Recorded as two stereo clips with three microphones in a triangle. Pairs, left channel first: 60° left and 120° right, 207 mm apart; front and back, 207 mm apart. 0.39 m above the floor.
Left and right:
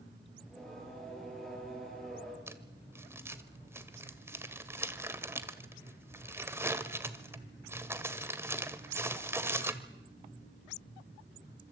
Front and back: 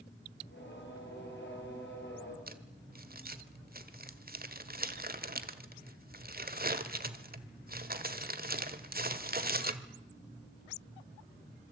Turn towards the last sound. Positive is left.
turn(degrees=165)